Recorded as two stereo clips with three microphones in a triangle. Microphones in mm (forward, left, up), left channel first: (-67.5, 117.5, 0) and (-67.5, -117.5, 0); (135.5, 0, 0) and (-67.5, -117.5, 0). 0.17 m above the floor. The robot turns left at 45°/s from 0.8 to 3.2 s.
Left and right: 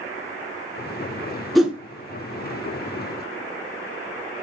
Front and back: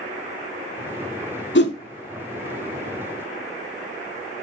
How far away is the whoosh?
About 0.5 m.